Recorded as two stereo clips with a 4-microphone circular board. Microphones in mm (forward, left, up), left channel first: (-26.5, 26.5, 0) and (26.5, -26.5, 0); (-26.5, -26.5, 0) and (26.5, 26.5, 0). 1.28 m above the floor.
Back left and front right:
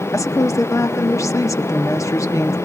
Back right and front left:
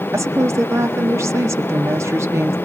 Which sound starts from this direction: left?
A woman speaking, at 0.1 s.